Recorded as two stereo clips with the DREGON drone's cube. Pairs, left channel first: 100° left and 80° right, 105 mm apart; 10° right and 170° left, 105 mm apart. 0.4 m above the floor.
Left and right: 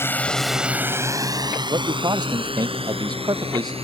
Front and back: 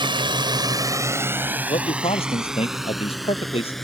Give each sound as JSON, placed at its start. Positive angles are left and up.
{"t": 0.0, "sound": "a drone", "azimuth_deg": 160}
{"t": 1.7, "sound": "a man speaking", "azimuth_deg": -30}